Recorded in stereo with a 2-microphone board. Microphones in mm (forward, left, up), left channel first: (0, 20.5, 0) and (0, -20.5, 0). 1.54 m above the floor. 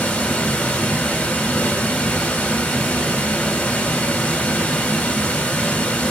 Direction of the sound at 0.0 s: 40° left (ahead or behind).